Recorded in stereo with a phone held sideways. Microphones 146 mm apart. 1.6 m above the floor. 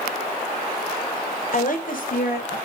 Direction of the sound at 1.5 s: 55° left (ahead or behind).